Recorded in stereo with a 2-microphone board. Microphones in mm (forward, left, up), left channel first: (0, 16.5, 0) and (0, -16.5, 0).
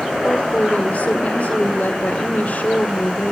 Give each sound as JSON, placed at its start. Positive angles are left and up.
{"t": 0.2, "sound": "a woman speaking", "side_deg": 50, "distance_m": 1.8}